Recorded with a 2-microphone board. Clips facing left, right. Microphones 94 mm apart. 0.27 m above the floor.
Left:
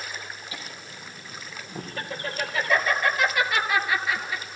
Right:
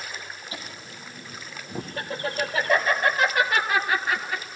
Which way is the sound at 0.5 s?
35° right (ahead or behind).